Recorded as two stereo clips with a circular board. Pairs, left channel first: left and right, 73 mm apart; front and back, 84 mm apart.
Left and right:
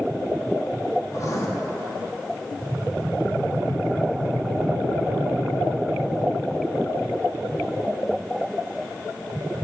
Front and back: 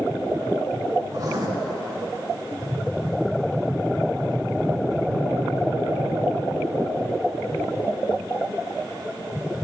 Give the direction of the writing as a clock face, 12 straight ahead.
8 o'clock.